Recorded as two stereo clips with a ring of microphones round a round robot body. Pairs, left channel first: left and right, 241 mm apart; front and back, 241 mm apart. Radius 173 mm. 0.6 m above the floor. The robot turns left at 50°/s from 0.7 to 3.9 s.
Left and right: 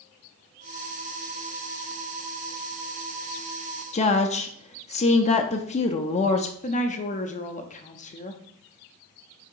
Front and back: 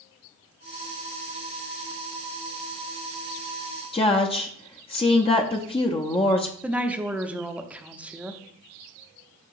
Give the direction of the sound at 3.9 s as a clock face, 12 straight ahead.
10 o'clock.